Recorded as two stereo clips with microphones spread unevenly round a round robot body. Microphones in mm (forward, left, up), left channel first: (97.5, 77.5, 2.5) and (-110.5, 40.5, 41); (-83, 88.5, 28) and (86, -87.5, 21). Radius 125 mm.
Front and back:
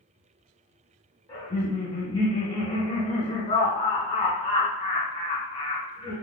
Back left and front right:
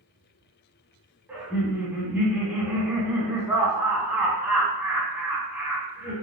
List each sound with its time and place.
1.3 s laughter: 25° left, 1.2 m